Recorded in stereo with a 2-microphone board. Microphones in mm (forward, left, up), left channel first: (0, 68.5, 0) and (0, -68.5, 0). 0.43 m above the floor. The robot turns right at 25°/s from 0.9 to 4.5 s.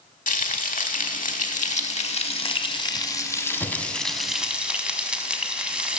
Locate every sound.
0.3 s frying: 95° left, 0.8 m; by 6.0 s 175° right, 0.8 m